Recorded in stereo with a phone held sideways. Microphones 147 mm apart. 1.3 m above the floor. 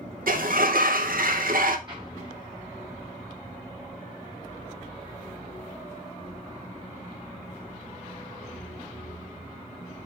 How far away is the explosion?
About 3.5 m.